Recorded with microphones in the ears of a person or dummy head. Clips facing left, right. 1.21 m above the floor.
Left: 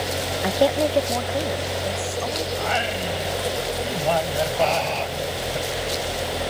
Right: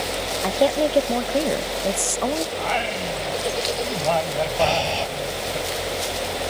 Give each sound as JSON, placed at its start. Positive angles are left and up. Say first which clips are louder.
{"t": 0.4, "sound": "a woman speaking", "louder": "even", "side_deg": 10}
{"t": 2.5, "sound": "singing", "louder": "even", "side_deg": 10}
{"t": 4.6, "sound": "breathing", "louder": "right 1 dB", "side_deg": -15}